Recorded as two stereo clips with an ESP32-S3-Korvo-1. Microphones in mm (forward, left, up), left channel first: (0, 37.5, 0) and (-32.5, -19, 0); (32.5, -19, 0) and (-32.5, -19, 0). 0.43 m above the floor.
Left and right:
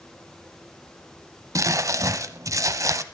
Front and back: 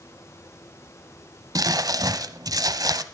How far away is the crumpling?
About 0.9 m.